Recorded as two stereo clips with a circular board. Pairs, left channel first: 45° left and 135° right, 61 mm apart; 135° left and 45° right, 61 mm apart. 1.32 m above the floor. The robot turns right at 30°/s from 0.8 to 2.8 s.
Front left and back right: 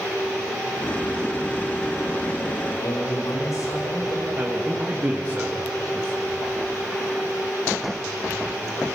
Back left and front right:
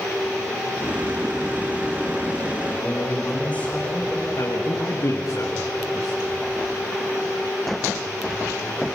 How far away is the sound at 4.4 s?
About 1.6 m.